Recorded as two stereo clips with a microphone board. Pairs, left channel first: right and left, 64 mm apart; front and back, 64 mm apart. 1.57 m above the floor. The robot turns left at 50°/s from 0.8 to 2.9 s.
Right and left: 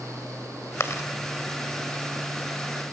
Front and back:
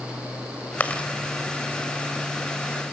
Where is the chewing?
60° right, 2 m; by 1.1 s 75° right, 2 m.